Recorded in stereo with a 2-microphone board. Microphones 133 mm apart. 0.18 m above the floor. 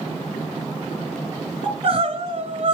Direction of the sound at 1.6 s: 45° right (ahead or behind).